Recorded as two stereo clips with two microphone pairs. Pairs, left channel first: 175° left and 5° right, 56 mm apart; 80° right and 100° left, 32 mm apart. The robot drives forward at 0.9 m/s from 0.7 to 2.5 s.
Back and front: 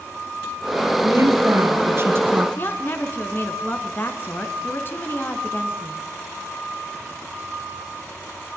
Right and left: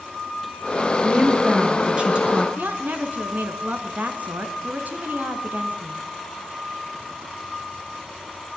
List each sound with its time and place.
1.0 s a woman speaking: 35° left, 5 m; by 2.5 s 45° left, 4 m
2.6 s a woman speaking: 125° left, 3 m